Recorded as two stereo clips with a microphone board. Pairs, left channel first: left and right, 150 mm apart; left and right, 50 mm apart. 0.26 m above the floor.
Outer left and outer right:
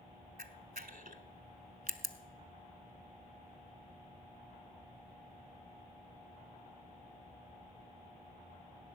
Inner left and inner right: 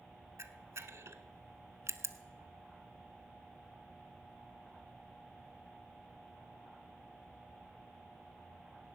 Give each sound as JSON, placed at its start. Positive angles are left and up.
{"t": 0.4, "sound": "a camera shutter", "side_deg": -75, "distance_m": 0.8}